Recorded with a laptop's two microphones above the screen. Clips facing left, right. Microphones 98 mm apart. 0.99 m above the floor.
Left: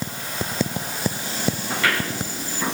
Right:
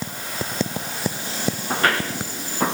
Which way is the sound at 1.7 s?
40° right (ahead or behind).